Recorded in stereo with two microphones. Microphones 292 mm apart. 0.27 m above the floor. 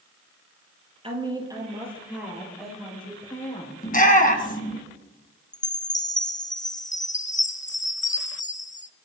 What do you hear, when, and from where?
1.0 s a woman speaking: 20° right (ahead or behind), 5 m; by 3.8 s 10° left (ahead or behind), 7.5 m
3.8 s a shout: 30° left (ahead or behind), 3 m
5.5 s a chime: 25° left (ahead or behind), 0.6 m